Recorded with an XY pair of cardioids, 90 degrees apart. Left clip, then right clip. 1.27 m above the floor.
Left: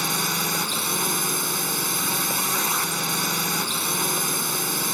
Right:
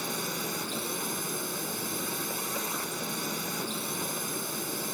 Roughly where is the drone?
Left.